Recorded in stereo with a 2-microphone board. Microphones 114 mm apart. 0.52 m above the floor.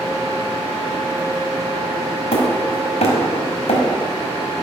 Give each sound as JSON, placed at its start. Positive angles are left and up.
{"t": 2.3, "sound": "hammering", "side_deg": 75, "distance_m": 2.0}